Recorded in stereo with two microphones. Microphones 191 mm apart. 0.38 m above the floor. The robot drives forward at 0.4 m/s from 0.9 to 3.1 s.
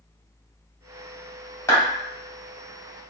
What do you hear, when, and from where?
1.7 s a clap: 15° left (ahead or behind), 1.3 m